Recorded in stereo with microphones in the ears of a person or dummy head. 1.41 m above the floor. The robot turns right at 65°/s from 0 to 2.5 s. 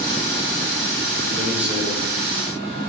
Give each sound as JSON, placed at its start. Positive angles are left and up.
{"t": 1.4, "sound": "a man speaking", "side_deg": -20, "distance_m": 7.5}